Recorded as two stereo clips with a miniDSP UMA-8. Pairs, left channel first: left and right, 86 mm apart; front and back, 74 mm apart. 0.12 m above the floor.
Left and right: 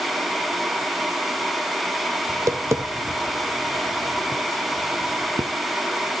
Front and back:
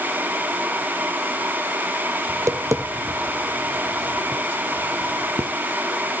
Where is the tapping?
140° right, 0.6 m.